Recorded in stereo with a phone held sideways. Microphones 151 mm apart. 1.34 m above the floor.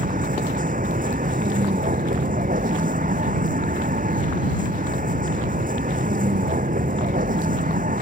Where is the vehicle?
60° right (ahead or behind).